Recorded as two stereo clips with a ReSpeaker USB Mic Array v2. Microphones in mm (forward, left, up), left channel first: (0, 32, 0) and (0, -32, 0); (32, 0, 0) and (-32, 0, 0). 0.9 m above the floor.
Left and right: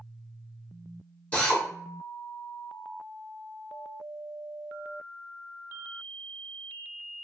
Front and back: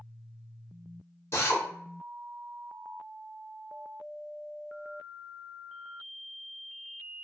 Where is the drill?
25° left, 0.8 m.